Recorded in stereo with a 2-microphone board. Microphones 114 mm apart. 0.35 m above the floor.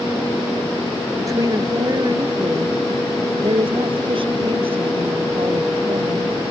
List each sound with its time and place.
1.2 s a woman speaking: 30° right (ahead or behind); by 6.3 s 65° right (ahead or behind)